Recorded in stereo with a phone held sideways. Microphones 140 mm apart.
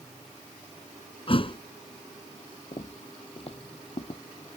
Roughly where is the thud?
Left.